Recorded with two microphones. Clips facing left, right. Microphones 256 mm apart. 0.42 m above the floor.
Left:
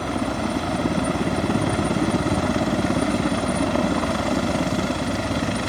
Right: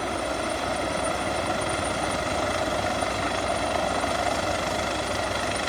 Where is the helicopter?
55° left (ahead or behind); by 5.7 s 50° left (ahead or behind).